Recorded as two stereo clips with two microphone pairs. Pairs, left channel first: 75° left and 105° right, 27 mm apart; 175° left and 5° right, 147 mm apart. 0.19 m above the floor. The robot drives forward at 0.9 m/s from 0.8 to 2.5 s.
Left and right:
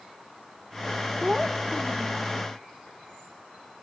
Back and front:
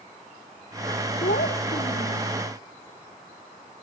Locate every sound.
1.2 s a child speaking: 170° left; by 2.3 s 175° left